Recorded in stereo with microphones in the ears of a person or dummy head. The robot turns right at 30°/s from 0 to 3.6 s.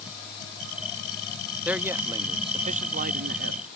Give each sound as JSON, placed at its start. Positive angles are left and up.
{"t": 1.6, "sound": "a man speaking", "azimuth_deg": 180}